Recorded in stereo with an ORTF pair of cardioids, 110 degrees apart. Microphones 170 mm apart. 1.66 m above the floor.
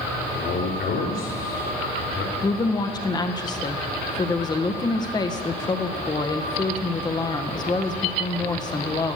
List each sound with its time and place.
0.3 s a man speaking: 70° left, 5 m
2.4 s a woman speaking: 25° left, 1.6 m